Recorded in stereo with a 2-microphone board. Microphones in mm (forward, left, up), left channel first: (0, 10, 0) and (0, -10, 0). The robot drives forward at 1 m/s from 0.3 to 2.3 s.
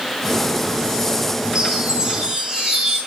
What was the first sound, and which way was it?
A chime, 45° right (ahead or behind).